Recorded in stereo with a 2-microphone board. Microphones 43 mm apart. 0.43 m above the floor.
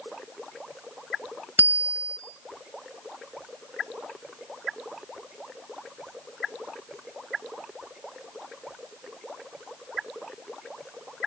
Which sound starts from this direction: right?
A bicycle bell, at 1.6 s.